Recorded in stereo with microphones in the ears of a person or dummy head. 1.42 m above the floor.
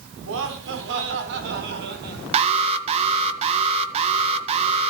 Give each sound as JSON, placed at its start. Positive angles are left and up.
{"t": 0.2, "sound": "laughter", "side_deg": -75, "distance_m": 4.0}
{"t": 2.3, "sound": "an alarm", "side_deg": -35, "distance_m": 1.9}